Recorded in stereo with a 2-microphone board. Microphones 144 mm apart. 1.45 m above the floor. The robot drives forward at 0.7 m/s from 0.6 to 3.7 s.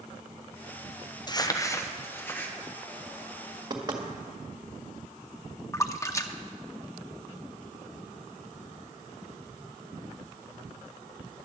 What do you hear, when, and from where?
1.3 s crumpling: 30° left (ahead or behind), 0.6 m; by 2.5 s 10° left (ahead or behind), 1.5 m
3.7 s knocking: 30° right (ahead or behind), 1.7 m
5.7 s a splash: 20° left (ahead or behind), 0.7 m